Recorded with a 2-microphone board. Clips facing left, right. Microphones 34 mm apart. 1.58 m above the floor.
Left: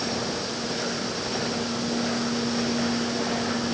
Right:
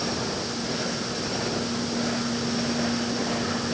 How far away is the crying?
No crying in this recording.